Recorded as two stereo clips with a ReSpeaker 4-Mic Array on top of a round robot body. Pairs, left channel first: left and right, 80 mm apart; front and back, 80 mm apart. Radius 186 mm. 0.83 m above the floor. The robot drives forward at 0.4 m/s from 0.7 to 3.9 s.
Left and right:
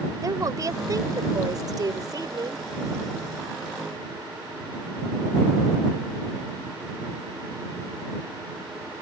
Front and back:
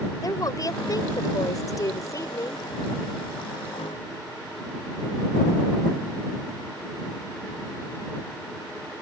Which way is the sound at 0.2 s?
45° right.